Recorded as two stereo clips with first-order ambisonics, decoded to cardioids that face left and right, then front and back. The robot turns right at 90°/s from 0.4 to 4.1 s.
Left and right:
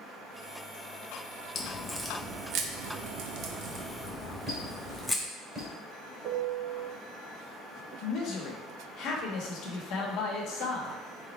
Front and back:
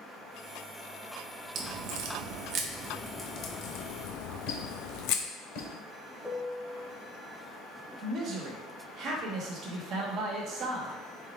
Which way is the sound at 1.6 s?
135° left.